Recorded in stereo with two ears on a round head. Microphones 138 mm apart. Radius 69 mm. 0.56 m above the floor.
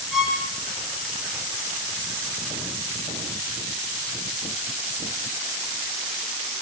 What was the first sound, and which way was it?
A violin, 5° right (ahead or behind).